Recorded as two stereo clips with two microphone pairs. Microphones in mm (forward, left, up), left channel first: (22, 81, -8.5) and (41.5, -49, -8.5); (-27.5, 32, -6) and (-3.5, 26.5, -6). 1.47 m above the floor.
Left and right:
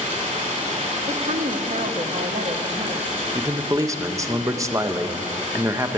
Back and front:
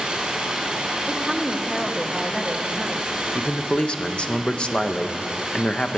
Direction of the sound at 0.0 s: 65° right.